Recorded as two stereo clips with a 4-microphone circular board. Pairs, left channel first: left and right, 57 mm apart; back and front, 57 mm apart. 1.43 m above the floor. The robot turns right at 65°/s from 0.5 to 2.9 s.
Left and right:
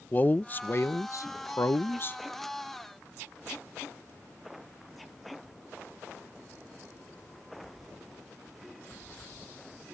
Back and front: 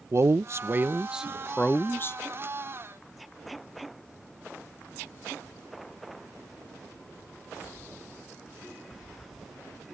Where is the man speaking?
35° left; by 2.2 s 145° left.